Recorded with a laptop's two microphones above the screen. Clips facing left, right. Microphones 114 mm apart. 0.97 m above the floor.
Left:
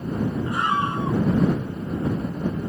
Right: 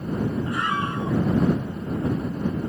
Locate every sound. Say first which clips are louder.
0.5 s a scream: left 2 dB; 25° left (ahead or behind)